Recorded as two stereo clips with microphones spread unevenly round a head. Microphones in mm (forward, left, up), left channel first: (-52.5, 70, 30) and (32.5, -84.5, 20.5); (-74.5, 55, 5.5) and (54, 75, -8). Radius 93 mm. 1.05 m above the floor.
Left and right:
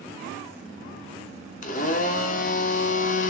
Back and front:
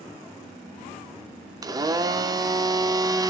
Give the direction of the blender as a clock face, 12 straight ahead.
10 o'clock.